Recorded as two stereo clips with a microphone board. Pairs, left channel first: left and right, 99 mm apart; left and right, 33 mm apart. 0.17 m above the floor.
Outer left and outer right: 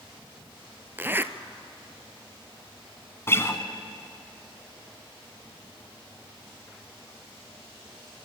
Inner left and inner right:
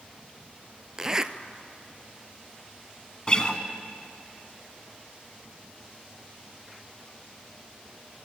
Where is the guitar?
25° left (ahead or behind), 1.3 m.